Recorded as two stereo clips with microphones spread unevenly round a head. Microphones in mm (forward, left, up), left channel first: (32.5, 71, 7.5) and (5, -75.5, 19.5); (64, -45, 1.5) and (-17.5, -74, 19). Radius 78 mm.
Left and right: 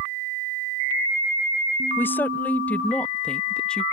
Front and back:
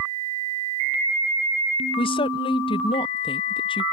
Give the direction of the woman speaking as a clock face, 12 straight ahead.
12 o'clock.